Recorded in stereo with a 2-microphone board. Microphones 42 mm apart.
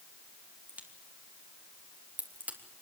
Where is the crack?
40° right (ahead or behind), 3 m.